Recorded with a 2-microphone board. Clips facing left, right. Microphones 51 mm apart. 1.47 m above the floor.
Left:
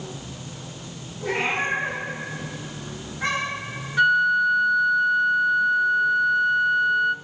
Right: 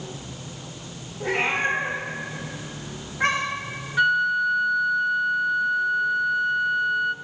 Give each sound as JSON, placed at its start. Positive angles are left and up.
{"t": 1.2, "sound": "a cat meowing", "side_deg": -50, "distance_m": 4.5}
{"t": 4.0, "sound": "a flute", "side_deg": -5, "distance_m": 0.7}